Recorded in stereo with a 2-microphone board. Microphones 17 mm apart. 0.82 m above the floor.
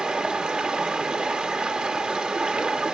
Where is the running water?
70° right (ahead or behind), 1.0 m.